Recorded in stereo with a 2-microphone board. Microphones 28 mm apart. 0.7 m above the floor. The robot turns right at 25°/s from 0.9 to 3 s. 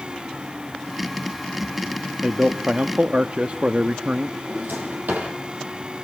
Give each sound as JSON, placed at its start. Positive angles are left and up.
{"t": 2.2, "sound": "a man speaking", "side_deg": -30, "distance_m": 0.8}
{"t": 4.4, "sound": "a drawer", "side_deg": -85, "distance_m": 7.5}